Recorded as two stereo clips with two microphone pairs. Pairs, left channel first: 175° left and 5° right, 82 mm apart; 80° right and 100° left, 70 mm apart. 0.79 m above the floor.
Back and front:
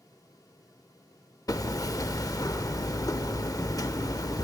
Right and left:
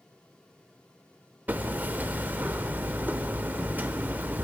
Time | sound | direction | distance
1.5 | hammering | 155° left | 0.6 m